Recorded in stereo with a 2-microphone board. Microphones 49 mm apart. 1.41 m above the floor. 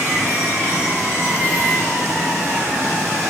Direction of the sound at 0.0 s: 85° right.